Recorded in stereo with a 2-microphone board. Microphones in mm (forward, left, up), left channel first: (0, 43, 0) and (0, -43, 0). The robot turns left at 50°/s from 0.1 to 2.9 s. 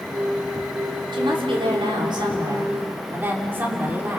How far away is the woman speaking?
About 4 m.